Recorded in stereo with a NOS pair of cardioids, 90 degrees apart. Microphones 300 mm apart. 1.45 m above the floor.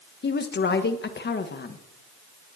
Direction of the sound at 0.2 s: 35° left.